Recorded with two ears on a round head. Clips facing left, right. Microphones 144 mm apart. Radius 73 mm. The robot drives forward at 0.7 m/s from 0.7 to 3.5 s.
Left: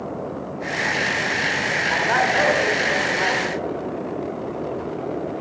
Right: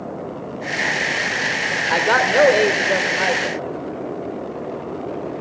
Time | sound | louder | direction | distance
1.9 | a man speaking | right 4 dB | 75° right (ahead or behind) | 1.9 m